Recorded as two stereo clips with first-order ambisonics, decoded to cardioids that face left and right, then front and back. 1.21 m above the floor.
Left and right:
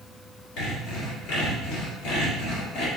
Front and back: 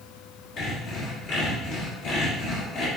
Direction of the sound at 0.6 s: 60° left.